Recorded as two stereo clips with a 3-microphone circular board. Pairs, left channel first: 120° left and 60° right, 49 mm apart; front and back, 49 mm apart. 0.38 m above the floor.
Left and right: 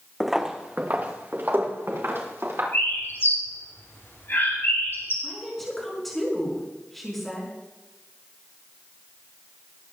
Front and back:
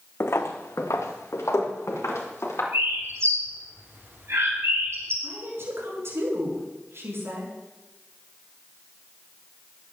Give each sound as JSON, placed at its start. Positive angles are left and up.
{"t": 0.2, "sound": "footsteps", "azimuth_deg": 30, "distance_m": 1.0}
{"t": 2.7, "sound": "a bird", "azimuth_deg": 155, "distance_m": 6.5}
{"t": 5.2, "sound": "a woman speaking", "azimuth_deg": -155, "distance_m": 5.0}